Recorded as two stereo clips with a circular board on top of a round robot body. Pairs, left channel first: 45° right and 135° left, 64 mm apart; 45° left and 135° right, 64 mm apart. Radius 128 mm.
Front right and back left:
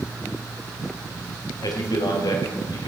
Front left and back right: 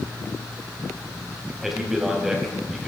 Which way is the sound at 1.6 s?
50° right.